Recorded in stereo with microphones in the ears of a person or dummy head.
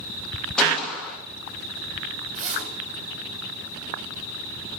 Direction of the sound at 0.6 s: 5° left (ahead or behind).